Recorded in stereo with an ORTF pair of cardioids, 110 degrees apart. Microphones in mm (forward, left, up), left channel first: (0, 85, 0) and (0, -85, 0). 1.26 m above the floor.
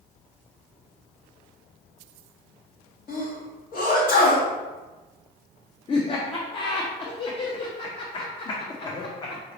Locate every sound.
3.1 s a sneeze: 55° left, 1.8 m
5.9 s laughter: 30° left, 0.7 m